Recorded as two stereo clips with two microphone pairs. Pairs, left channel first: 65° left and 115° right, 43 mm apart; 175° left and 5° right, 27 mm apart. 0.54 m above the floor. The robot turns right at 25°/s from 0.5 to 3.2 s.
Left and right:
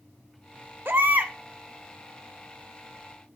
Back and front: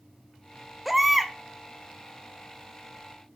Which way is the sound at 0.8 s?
85° right.